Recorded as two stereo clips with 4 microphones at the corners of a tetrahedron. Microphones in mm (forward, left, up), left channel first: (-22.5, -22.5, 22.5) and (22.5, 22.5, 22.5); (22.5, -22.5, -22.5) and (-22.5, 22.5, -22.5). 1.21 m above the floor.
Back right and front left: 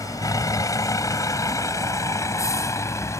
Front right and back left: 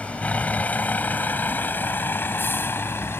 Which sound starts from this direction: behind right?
A vehicle, at 0.0 s.